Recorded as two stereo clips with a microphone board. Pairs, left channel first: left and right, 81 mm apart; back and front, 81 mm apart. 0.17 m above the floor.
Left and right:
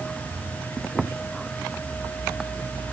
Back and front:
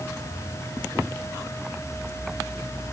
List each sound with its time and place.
Only background noise.